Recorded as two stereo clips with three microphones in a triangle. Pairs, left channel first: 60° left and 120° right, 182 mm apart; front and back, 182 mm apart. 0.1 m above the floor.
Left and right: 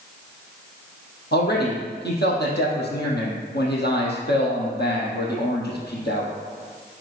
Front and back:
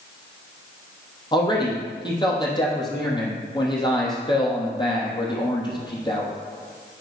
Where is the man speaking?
60° left, 3 m.